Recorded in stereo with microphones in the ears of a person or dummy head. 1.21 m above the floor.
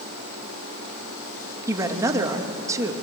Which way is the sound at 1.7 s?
20° right (ahead or behind).